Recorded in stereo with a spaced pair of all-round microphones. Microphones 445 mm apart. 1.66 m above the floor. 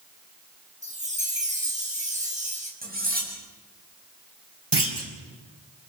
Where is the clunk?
65° right (ahead or behind), 4.5 m.